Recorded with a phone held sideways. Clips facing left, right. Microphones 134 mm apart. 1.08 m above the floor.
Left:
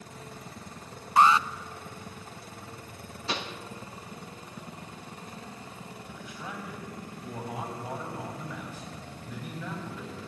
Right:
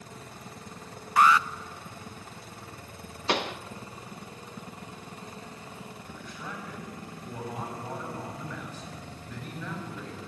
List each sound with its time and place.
1.2 s an alarm: 25° left (ahead or behind), 0.5 m
3.3 s a pop: 65° right (ahead or behind), 0.6 m
6.0 s a man speaking: 10° left (ahead or behind), 7 m